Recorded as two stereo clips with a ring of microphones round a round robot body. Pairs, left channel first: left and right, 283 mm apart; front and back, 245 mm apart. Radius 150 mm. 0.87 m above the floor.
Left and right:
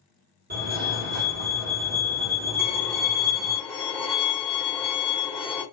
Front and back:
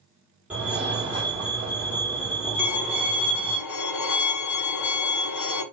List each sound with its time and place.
0.5 s a fire alarm: 100° right, 1.9 m
2.6 s a violin: straight ahead, 1.1 m